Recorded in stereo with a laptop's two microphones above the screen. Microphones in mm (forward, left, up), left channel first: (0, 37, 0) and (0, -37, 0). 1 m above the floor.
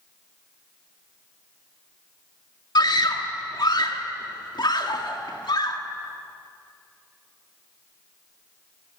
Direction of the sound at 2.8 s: 80° left.